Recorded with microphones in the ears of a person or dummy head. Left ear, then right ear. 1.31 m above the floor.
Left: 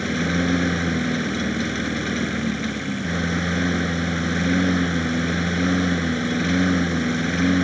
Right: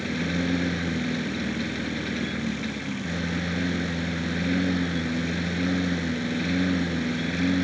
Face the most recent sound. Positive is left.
turn(degrees=40)  # may be behind; listen again after turning